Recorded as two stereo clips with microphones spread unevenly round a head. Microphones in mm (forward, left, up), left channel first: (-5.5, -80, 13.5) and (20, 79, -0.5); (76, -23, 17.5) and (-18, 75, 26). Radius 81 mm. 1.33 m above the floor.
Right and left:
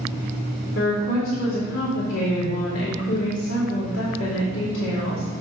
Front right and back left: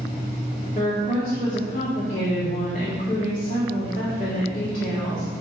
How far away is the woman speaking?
About 2.5 m.